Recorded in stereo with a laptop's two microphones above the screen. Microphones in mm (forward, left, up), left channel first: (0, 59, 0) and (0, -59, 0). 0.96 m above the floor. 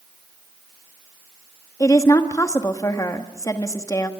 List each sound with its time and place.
1.8 s a woman speaking: 30° left (ahead or behind), 1.3 m